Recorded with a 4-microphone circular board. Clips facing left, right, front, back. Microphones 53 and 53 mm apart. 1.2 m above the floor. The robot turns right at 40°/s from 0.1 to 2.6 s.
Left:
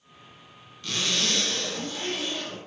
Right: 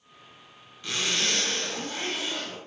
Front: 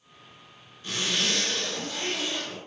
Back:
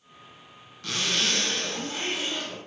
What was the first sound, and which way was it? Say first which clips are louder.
A zipper: even, back 1 dB; 165° right.